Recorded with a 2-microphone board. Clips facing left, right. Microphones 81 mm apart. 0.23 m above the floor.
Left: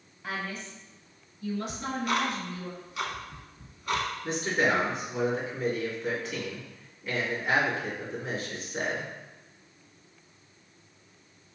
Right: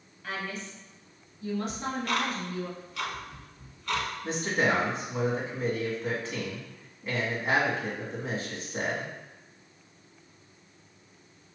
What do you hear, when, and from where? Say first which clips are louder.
0.2 s a woman speaking: even; 15° left (ahead or behind), 1.1 m; by 2.7 s 60° right (ahead or behind), 2 m
1.7 s ticking: left 1 dB; 15° left (ahead or behind), 0.9 m
4.2 s a man speaking: even; 35° right (ahead or behind), 1.9 m